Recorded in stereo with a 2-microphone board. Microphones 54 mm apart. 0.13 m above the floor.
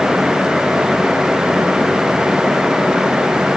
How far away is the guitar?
No guitar in this recording.